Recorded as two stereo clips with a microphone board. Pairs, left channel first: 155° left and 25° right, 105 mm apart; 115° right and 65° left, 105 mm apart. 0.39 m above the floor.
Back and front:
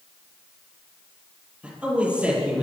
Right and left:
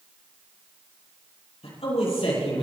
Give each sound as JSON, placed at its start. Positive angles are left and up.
{"t": 1.6, "sound": "a man speaking", "azimuth_deg": -100, "distance_m": 9.0}